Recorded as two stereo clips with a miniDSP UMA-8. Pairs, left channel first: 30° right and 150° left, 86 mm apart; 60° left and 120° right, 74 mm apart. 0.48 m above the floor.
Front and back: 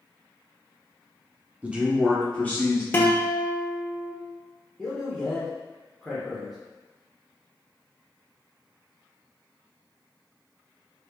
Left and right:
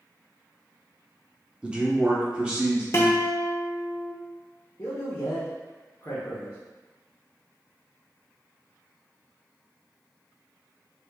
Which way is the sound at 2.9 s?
25° left.